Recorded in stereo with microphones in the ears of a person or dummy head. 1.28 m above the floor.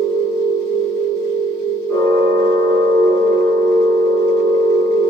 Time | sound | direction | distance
0.0 | a machine running | 35° right (ahead or behind) | 1.1 m